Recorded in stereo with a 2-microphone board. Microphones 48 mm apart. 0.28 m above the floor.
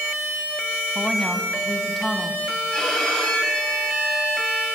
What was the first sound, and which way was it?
A woman speaking, 5° left (ahead or behind).